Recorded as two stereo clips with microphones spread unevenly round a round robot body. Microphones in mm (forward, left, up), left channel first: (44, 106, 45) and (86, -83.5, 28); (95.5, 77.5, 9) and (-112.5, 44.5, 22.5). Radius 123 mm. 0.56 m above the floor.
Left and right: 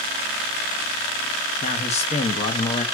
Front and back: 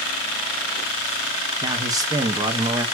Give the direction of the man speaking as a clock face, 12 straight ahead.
8 o'clock.